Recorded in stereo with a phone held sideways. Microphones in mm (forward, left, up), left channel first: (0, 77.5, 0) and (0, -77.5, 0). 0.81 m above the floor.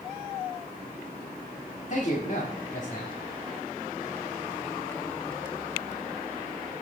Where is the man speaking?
50° left (ahead or behind), 1.7 m.